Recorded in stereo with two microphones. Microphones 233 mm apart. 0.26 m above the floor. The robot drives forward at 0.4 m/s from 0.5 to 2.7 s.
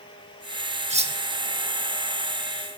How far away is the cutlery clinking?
About 0.5 m.